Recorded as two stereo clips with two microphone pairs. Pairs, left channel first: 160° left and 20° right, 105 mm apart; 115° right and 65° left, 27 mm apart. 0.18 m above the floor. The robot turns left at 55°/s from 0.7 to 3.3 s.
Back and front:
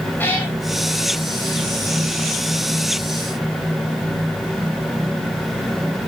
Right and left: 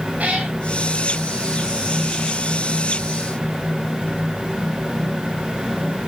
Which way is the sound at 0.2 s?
90° left.